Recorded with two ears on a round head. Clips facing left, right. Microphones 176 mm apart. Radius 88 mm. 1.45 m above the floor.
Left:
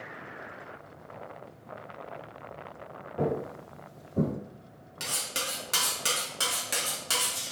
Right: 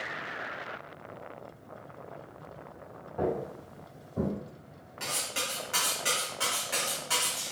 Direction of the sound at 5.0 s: 50° left (ahead or behind).